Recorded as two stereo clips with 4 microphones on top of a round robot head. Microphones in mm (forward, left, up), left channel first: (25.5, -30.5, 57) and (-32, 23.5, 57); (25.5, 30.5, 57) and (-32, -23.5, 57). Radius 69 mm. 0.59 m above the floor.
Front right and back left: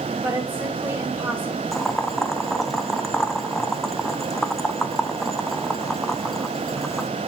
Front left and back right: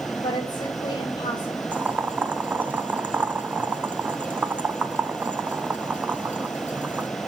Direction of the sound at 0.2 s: 75° left.